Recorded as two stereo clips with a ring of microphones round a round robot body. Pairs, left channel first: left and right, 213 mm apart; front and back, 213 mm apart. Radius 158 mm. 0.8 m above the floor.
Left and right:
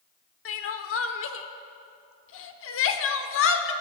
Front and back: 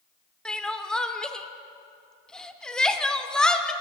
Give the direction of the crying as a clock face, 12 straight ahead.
9 o'clock.